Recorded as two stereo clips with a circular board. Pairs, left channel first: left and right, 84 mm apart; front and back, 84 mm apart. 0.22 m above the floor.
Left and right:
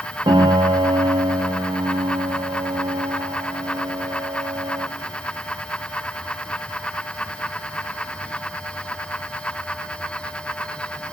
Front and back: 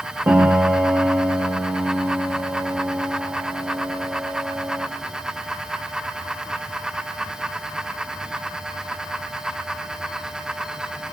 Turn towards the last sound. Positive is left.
turn(degrees=-115)